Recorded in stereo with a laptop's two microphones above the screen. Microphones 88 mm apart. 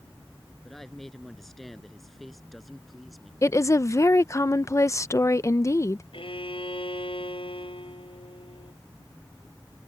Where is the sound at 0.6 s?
5° left (ahead or behind); by 3.3 s centre (ahead or behind).